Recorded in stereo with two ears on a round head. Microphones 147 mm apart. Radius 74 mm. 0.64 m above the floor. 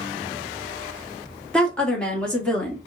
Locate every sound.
1.5 s a woman speaking: 5° left (ahead or behind), 0.9 m